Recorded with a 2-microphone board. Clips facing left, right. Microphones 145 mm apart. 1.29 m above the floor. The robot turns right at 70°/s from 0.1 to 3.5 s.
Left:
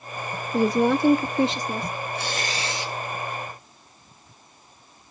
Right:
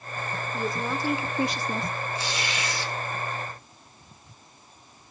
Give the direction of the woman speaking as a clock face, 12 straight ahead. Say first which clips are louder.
Left 11 dB; 9 o'clock.